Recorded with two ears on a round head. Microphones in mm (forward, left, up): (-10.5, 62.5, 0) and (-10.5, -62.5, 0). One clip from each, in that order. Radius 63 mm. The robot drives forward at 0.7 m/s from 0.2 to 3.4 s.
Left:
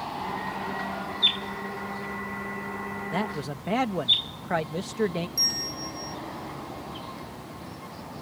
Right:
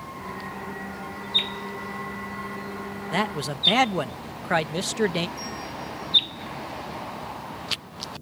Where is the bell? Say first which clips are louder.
Left 6 dB; 70° left (ahead or behind).